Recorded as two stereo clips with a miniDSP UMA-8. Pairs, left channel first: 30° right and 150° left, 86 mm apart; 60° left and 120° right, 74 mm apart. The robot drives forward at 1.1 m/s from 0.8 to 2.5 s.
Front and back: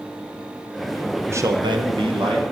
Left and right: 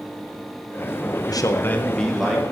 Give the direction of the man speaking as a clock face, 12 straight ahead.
9 o'clock.